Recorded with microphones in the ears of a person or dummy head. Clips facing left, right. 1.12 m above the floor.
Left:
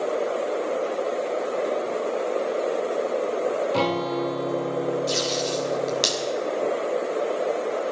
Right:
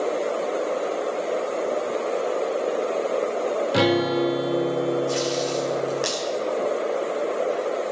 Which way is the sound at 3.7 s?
15° right (ahead or behind).